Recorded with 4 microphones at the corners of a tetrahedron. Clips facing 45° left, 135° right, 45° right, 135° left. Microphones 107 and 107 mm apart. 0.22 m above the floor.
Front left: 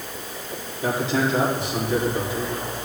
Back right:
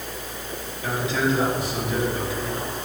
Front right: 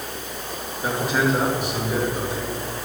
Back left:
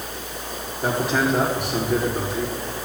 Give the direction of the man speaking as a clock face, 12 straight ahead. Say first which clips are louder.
Front left 2 dB, back left 1 dB; 9 o'clock.